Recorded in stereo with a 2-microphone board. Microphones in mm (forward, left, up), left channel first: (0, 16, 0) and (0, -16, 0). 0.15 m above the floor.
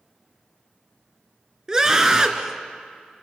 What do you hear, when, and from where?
1.7 s a scream: 20° right (ahead or behind), 2.5 m